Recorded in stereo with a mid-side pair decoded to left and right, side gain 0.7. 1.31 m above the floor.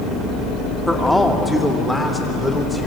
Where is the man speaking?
Straight ahead, 3 m.